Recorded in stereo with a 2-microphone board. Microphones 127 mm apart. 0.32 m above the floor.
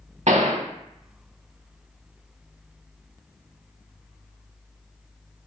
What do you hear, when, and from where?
0.3 s a gunshot: 70° right (ahead or behind), 0.6 m